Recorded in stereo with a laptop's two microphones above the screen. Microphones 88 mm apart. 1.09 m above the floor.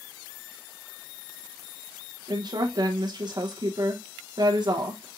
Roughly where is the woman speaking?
Right.